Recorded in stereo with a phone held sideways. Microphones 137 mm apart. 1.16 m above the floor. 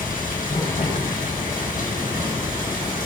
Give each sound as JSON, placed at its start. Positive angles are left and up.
{"t": 0.0, "sound": "running water", "side_deg": 85, "distance_m": 6.5}